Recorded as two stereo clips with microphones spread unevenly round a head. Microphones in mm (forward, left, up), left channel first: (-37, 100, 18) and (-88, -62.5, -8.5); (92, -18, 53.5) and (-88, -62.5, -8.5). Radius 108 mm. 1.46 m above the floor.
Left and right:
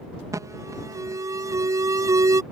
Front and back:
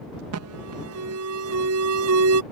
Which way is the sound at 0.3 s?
175° left.